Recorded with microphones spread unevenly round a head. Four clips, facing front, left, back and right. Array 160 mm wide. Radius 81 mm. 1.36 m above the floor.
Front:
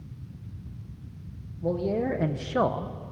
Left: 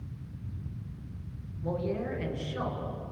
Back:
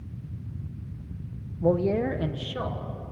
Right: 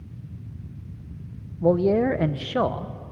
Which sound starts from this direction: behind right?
A man speaking, at 1.6 s.